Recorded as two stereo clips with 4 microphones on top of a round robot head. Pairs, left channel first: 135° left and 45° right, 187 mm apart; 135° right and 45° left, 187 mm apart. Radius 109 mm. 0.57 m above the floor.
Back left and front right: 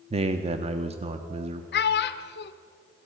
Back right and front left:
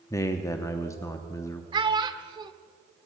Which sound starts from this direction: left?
A child speaking, at 1.7 s.